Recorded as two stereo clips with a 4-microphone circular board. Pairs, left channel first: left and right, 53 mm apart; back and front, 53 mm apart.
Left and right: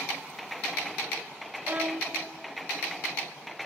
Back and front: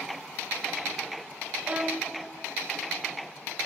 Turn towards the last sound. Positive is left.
turn(degrees=-55)